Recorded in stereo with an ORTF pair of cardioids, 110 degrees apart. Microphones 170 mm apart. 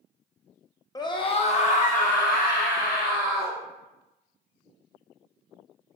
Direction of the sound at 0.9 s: 20° left.